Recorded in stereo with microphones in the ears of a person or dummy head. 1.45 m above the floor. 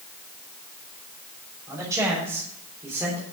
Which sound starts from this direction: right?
A man speaking, at 1.7 s.